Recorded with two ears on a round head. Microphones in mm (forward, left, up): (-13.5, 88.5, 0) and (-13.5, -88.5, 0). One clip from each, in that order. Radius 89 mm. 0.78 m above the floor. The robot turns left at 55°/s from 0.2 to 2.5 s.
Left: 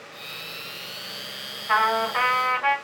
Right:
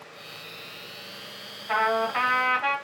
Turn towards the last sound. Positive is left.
turn(degrees=-20)